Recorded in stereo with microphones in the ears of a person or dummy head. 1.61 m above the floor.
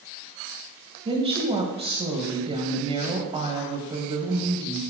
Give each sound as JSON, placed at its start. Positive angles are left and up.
{"t": 1.1, "sound": "a woman speaking", "side_deg": -35, "distance_m": 1.8}